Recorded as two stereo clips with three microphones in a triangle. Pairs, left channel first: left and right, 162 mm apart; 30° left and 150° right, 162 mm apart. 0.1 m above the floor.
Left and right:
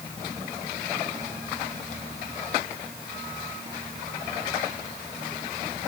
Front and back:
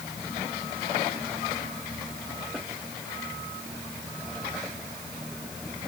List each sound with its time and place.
Only background noise.